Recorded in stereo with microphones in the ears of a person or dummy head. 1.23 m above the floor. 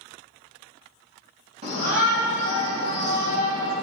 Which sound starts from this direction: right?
A shout, at 1.6 s.